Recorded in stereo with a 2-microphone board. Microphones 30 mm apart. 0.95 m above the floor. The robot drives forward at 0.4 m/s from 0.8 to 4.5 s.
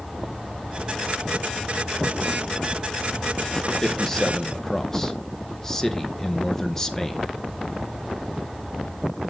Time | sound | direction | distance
3.8 | a man speaking | 15° left (ahead or behind) | 0.7 m